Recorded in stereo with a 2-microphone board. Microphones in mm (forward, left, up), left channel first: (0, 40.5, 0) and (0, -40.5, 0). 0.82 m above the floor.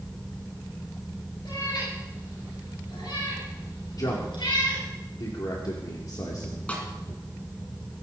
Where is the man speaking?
55° left (ahead or behind), 2.5 m.